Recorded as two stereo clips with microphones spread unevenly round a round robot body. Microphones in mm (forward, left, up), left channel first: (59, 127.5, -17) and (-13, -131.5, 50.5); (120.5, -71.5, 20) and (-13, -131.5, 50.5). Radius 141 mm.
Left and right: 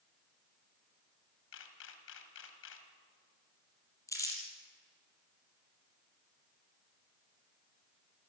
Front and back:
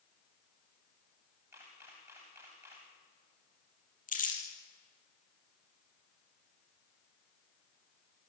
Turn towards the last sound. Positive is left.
turn(degrees=-5)